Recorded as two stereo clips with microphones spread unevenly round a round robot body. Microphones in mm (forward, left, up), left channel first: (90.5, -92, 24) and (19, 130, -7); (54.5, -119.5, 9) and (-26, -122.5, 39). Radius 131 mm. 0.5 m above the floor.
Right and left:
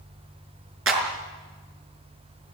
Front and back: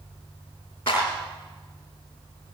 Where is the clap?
75° left, 5 m.